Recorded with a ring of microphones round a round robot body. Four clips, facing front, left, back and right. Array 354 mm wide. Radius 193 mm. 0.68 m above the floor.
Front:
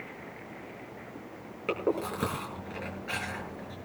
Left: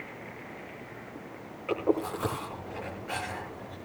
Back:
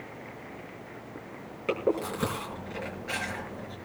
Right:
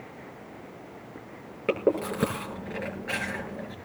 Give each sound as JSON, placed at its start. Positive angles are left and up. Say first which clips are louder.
{"t": 1.7, "sound": "chewing", "louder": "right 3 dB, back 2 dB", "azimuth_deg": -85, "distance_m": 7.5}